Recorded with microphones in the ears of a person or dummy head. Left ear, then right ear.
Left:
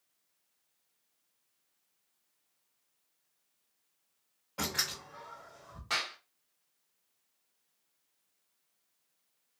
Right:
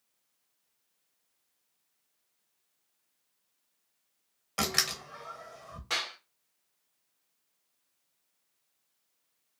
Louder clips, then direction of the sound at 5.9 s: Right 1 dB; centre (ahead or behind).